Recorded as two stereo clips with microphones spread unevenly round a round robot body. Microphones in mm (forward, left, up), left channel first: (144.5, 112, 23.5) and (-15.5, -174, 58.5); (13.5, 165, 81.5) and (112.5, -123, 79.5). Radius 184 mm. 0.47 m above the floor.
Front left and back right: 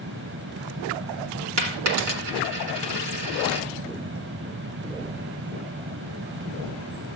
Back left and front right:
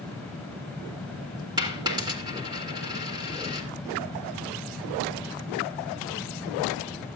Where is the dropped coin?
150° right, 1.8 m.